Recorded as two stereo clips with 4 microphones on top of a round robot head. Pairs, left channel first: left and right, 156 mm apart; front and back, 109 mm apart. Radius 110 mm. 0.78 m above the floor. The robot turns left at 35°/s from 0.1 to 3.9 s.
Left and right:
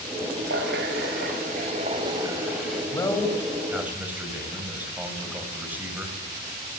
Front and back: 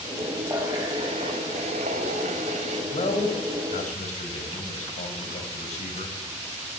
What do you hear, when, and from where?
0.5 s a running tap: 100° right, 3.5 m; by 2.8 s 175° left, 3.5 m
2.9 s a man speaking: 25° left, 5 m; by 6.2 s 10° right, 5 m